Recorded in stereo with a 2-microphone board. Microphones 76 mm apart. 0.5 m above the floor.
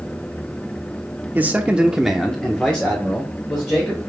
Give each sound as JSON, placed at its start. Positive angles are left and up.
{"t": 1.4, "sound": "a man speaking", "side_deg": -25, "distance_m": 0.8}